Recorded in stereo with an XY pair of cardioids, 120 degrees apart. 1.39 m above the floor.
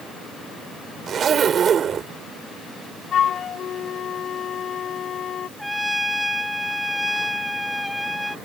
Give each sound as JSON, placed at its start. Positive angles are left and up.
{"t": 1.1, "sound": "a zipper", "azimuth_deg": -45}
{"t": 3.1, "sound": "a flute", "azimuth_deg": 50}
{"t": 5.6, "sound": "a trumpet", "azimuth_deg": 0}